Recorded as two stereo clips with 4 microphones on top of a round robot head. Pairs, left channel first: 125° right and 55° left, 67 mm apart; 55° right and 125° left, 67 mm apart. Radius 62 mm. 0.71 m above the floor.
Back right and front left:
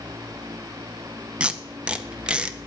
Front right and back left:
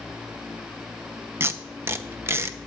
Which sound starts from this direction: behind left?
Tape being pulled, at 1.4 s.